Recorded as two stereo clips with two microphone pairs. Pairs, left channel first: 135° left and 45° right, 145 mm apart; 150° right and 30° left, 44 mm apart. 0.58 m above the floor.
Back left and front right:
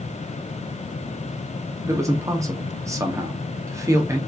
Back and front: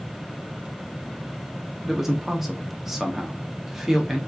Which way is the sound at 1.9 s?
45° right.